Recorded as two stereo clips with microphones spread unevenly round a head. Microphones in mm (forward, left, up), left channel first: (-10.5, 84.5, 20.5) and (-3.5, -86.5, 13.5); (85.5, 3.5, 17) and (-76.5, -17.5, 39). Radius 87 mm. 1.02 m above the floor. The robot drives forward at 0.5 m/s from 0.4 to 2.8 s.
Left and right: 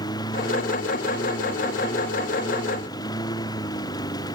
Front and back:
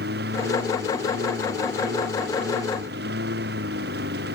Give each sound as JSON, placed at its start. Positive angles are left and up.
{"t": 0.0, "sound": "a lawn mower", "azimuth_deg": 160}